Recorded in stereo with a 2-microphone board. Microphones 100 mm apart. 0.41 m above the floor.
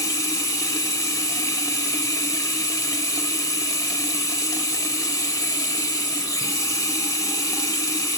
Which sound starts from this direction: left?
Running water, at 0.0 s.